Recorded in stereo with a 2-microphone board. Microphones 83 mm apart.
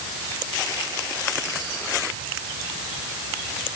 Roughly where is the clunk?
No clunk in this recording.